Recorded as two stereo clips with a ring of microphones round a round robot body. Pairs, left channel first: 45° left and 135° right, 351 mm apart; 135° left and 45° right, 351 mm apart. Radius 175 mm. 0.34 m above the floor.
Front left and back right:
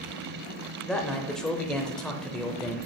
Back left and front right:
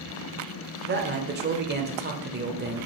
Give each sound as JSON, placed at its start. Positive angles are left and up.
{"t": 0.9, "sound": "a man speaking", "azimuth_deg": -40, "distance_m": 1.0}